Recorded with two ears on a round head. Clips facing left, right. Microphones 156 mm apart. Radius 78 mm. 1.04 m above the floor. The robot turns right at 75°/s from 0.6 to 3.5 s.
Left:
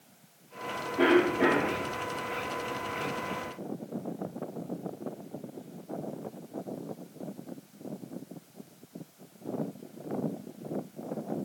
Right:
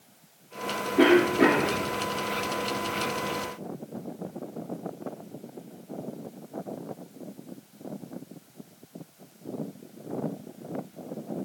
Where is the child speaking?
No child speaking in this recording.